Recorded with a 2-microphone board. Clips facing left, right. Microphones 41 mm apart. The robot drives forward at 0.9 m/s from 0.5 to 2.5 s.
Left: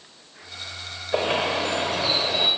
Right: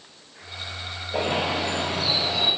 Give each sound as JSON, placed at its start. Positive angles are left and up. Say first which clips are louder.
{"t": 1.1, "sound": "a bird", "louder": "left 2 dB", "side_deg": 50, "distance_m": 7.5}